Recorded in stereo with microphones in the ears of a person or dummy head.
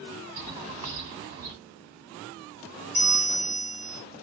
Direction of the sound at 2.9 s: 40° right (ahead or behind).